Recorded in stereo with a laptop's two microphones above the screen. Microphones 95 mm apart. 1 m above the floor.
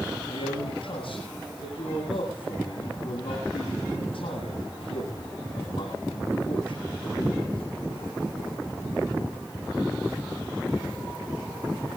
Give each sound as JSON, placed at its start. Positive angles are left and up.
{"t": 0.3, "sound": "a man speaking", "side_deg": 85, "distance_m": 8.5}